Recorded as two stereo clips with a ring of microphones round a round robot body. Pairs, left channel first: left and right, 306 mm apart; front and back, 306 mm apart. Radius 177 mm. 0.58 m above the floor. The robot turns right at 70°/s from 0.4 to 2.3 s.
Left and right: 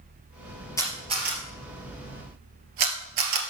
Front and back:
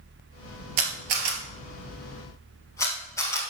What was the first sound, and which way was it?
A camera shutter, 170° left.